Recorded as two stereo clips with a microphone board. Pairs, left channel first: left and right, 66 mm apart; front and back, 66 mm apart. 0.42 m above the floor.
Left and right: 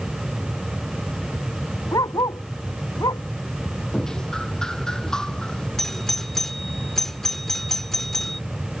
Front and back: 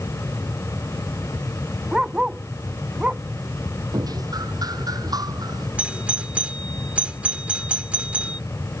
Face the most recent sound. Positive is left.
turn(degrees=165)